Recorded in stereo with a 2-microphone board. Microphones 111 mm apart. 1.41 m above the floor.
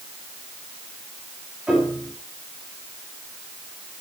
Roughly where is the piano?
Centre.